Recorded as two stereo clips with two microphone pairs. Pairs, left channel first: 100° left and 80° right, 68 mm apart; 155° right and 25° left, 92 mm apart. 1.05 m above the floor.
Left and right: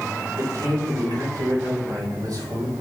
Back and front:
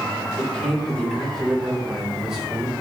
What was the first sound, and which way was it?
A man speaking, 80° right.